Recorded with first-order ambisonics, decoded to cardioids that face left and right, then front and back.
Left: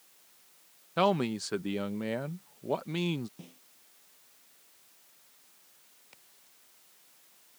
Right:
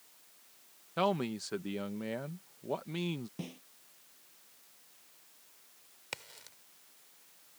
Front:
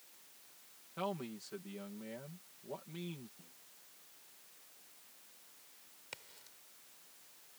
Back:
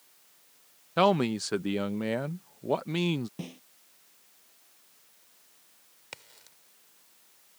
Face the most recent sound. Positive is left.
turn(degrees=-105)